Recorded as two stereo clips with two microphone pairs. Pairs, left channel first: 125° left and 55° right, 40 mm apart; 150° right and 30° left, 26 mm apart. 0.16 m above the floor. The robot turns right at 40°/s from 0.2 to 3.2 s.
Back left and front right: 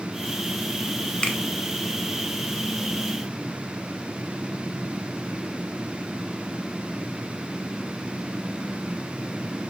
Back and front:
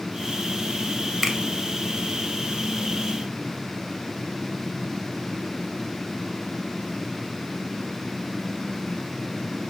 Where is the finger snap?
110° left, 0.8 m; by 1.4 s 115° left, 0.8 m.